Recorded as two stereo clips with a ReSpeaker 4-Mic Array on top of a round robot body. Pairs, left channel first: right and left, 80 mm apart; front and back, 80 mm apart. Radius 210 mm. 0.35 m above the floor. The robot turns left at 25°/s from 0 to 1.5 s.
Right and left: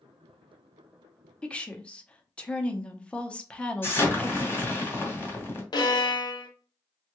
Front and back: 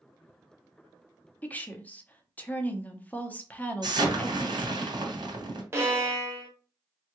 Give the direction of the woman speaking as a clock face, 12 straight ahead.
1 o'clock.